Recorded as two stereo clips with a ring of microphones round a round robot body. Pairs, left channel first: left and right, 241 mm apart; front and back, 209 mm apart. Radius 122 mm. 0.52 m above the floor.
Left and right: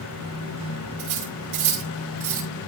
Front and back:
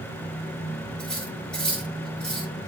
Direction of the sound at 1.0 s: 85° right.